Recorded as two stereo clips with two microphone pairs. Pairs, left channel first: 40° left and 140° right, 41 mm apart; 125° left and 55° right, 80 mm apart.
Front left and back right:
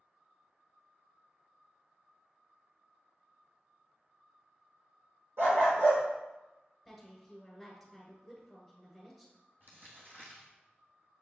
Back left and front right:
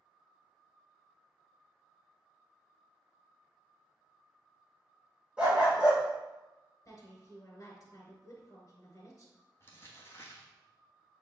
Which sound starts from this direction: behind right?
A dog barking, at 5.4 s.